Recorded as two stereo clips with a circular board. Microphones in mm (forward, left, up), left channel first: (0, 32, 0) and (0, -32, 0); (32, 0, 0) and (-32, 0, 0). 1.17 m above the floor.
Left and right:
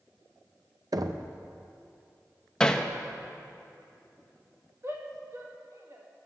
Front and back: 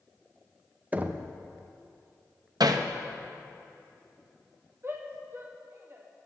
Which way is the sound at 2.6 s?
170° left.